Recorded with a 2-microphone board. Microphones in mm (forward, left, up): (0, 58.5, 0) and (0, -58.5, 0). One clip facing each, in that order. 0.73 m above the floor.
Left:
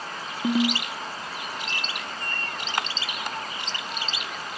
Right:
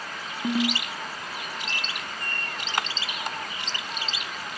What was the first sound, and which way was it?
A ringtone, 10° left (ahead or behind).